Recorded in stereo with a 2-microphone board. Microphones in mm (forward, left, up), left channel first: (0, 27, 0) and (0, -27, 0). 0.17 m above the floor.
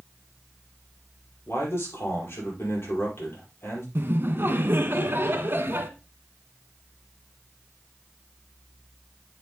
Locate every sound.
1.5 s a man speaking: 55° left (ahead or behind), 5.5 m
4.0 s laughter: 40° right (ahead or behind), 1.3 m